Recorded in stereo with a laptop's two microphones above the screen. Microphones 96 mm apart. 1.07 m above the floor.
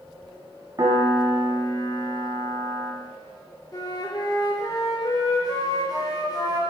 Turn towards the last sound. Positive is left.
turn(degrees=40)  # may be behind; listen again after turning